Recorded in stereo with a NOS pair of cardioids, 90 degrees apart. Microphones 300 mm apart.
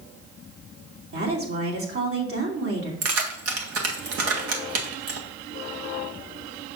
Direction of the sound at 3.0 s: 55° right.